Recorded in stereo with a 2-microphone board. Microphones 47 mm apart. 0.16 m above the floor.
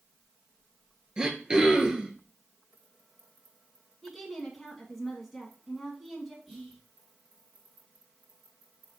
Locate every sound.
1.2 s throat clearing: 20° right (ahead or behind), 1.0 m
4.0 s a woman speaking: 5° left (ahead or behind), 1.4 m
6.5 s whispering: 5° left (ahead or behind), 1.8 m